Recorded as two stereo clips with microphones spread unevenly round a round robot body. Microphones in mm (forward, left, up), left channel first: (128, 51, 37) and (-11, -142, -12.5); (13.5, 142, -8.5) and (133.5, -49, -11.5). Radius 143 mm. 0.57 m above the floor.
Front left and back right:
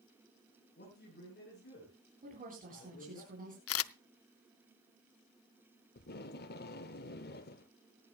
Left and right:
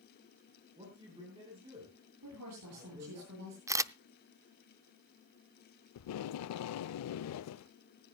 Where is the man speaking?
10° left, 9.5 m.